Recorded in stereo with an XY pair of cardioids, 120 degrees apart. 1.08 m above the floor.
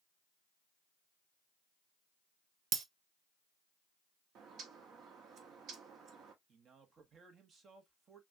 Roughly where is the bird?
Ahead right.